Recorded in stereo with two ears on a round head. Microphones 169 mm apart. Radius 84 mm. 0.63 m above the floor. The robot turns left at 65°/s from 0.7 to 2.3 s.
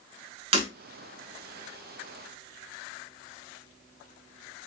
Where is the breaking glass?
35° right (ahead or behind), 0.9 m.